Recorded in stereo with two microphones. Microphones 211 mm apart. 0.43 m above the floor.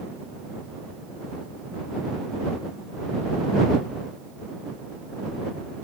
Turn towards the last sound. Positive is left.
No sound to turn to.